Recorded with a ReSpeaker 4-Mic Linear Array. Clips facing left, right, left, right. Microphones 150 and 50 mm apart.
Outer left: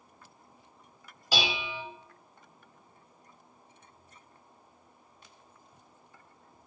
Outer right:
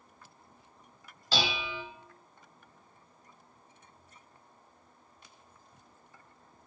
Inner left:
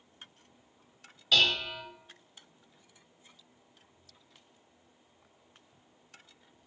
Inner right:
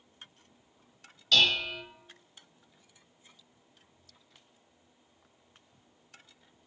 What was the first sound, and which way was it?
Dishes clattering, 10° left (ahead or behind).